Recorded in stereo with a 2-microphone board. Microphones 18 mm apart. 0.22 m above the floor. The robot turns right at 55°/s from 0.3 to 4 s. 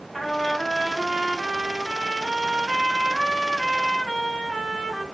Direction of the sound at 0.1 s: 5° left (ahead or behind).